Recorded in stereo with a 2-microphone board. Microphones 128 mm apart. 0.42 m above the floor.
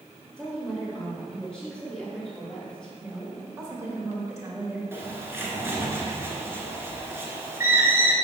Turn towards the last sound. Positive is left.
turn(degrees=-20)  # may be behind; listen again after turning